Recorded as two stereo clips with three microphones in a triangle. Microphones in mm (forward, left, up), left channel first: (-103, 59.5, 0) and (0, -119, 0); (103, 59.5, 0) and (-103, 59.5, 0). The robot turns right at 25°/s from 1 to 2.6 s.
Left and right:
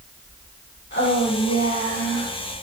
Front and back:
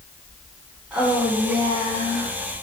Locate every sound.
0.9 s a woman speaking: 95° left, 7.5 m; by 2.3 s 125° left, 7.5 m